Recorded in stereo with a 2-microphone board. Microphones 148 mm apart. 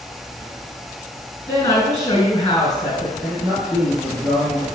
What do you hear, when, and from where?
1.5 s a woman speaking: 25° left (ahead or behind), 1.7 m
3.2 s a man speaking: 15° right (ahead or behind), 1.6 m